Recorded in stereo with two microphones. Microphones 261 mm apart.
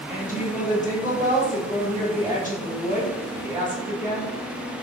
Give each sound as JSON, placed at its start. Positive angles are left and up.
{"t": 0.1, "sound": "a woman speaking", "side_deg": 30, "distance_m": 1.4}